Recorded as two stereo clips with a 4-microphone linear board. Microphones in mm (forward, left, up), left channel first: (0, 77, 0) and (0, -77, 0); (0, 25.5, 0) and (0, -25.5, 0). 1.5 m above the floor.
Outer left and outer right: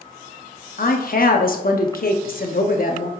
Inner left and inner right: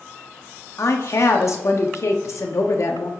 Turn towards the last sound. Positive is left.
turn(degrees=70)  # may be behind; listen again after turning